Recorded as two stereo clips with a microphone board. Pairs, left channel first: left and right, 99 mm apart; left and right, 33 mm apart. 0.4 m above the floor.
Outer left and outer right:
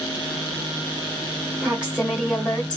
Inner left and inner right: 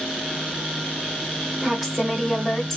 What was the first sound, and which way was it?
A woman speaking, 10° right (ahead or behind).